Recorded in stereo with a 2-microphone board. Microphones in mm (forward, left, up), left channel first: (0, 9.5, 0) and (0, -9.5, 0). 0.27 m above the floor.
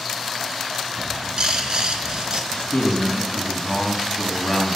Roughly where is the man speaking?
Left.